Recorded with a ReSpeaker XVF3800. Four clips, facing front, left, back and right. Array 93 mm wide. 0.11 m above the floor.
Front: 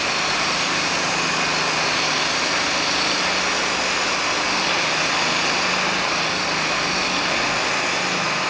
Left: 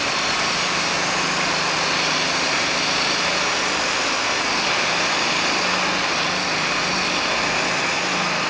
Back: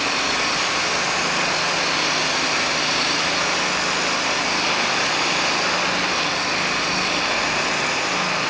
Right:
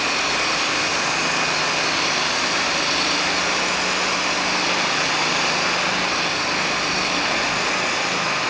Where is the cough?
I don't hear a cough.